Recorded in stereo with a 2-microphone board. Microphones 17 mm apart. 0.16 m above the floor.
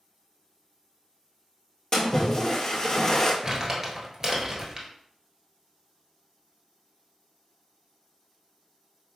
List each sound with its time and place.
1.9 s a splash: 30° left (ahead or behind), 1.0 m
3.4 s crumpling: 25° right (ahead or behind), 1.2 m